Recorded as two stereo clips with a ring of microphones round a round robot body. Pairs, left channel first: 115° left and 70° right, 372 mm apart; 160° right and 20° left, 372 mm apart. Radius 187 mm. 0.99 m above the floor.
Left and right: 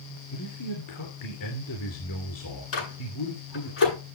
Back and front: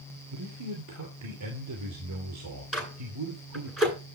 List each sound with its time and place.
0.3 s a man speaking: 70° left, 3 m
2.7 s a microwave: 115° left, 9.5 m